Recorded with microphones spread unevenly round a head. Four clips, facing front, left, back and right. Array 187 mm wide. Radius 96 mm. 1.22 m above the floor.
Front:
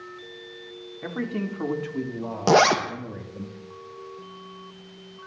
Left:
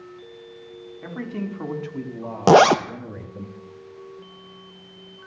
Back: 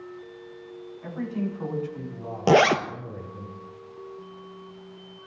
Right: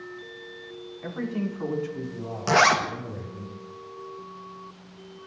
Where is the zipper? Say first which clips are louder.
Left 7 dB, even; 95° left, 0.8 m.